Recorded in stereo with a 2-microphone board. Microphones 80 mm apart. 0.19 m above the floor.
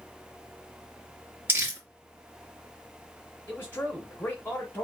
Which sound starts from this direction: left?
A man speaking, at 3.5 s.